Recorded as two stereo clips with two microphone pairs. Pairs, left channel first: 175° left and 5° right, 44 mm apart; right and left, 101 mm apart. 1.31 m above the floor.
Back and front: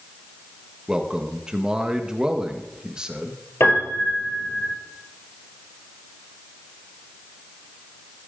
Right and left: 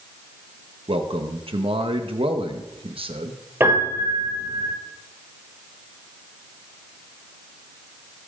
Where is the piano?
160° left, 5 m.